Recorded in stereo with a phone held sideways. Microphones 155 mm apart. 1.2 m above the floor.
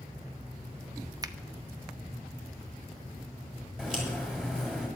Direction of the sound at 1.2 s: 25° right (ahead or behind).